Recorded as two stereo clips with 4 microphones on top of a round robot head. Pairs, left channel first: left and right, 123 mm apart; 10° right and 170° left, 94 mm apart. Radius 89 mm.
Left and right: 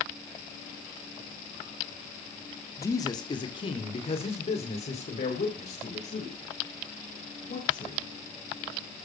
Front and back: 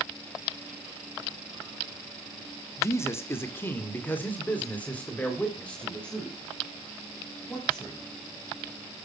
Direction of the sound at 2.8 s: 35° left.